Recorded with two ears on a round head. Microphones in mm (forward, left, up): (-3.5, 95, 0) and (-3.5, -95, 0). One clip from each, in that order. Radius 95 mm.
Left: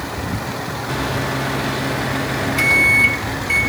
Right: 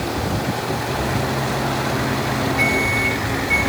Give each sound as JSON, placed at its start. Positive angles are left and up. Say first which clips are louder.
{"t": 0.9, "sound": "a microwave", "louder": "left 3 dB", "side_deg": 70, "distance_m": 3.0}